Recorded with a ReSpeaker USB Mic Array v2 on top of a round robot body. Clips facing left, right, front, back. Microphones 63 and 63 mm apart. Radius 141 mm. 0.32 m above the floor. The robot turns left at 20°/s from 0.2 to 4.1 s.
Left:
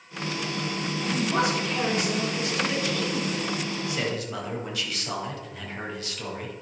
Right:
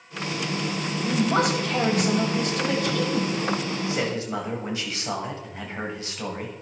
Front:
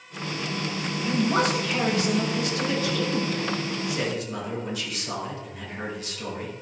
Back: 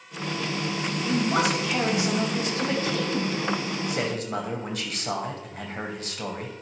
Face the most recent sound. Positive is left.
turn(degrees=-155)